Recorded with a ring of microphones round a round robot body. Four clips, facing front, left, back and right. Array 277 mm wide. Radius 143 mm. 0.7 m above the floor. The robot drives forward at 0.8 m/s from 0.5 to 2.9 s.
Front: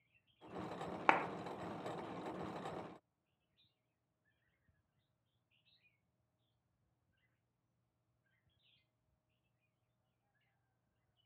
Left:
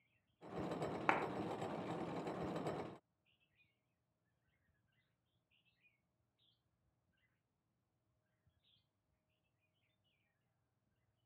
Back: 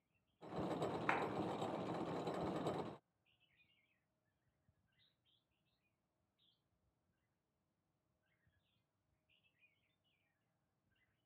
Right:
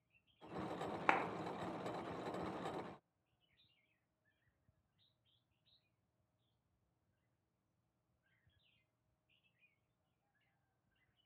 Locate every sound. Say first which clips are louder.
1.1 s a clap: right 1 dB, front 9 dB; 5° right, 1.4 m